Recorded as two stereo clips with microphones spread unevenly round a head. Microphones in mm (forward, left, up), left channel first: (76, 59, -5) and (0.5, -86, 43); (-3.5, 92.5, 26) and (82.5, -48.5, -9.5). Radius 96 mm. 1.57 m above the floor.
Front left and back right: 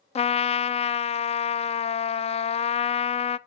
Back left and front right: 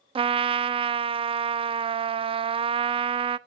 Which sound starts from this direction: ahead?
A trumpet, at 0.1 s.